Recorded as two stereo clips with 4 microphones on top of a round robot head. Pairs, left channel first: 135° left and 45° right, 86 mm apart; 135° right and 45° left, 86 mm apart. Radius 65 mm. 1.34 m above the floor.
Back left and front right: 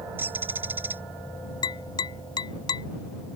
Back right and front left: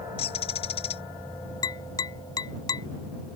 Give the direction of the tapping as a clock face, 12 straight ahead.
6 o'clock.